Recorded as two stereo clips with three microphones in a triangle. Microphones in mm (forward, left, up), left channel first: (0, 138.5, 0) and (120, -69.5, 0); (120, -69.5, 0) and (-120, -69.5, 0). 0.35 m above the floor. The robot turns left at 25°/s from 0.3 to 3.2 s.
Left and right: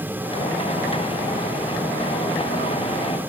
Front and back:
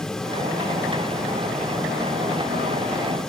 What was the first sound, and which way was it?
Only background noise.